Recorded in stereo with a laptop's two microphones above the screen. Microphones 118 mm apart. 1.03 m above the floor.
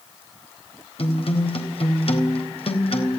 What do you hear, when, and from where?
1.0 s a guitar: 55° left (ahead or behind), 4 m